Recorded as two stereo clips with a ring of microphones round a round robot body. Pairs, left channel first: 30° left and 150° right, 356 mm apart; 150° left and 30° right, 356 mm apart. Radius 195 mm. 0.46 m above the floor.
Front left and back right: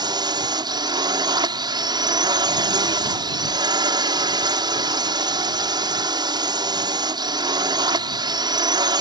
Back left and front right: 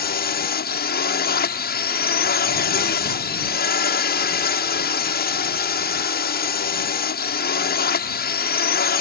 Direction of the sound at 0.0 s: 145° left.